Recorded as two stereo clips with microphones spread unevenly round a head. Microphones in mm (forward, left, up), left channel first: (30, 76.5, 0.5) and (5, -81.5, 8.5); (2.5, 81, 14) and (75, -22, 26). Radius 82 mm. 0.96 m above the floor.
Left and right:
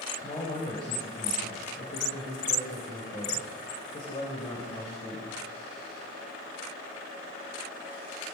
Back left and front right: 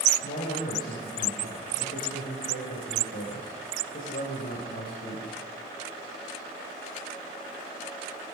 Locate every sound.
0.2 s a man speaking: 145° left, 4.5 m